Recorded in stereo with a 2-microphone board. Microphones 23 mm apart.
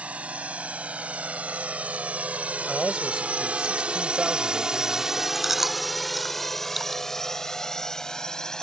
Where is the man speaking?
25° right (ahead or behind).